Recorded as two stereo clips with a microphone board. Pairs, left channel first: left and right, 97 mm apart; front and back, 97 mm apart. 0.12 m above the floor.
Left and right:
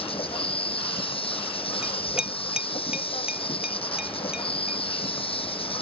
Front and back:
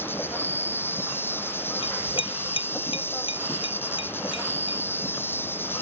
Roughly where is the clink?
Ahead.